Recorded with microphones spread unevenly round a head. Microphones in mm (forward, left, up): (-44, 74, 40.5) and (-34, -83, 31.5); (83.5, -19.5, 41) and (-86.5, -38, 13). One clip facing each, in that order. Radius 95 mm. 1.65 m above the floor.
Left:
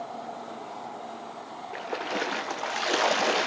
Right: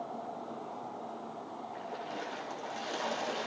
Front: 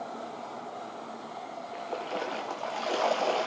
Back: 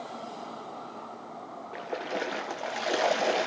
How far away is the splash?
About 1.2 m.